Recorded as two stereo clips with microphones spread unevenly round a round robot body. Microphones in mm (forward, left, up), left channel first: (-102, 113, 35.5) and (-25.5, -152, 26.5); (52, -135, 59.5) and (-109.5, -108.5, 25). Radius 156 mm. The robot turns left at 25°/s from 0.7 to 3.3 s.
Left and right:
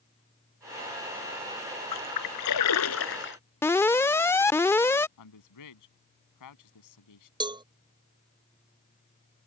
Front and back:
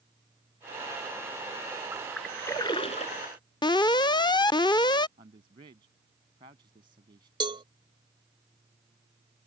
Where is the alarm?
40° left.